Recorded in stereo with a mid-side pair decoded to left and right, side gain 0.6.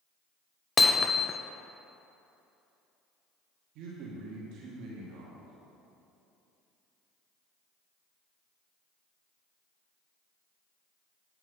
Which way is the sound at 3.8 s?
65° right.